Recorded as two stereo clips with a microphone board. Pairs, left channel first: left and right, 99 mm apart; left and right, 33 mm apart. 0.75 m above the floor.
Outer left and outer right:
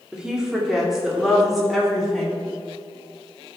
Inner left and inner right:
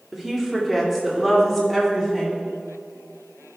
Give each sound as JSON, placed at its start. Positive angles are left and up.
{"t": 0.1, "sound": "a woman speaking", "side_deg": -10, "distance_m": 2.0}